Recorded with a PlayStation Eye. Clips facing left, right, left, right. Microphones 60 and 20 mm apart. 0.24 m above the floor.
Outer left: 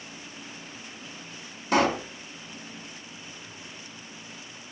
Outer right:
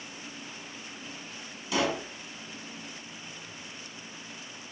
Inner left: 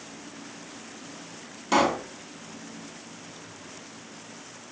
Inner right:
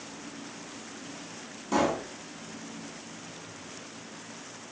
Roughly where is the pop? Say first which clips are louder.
Outer left 6 dB, inner left 4 dB; left.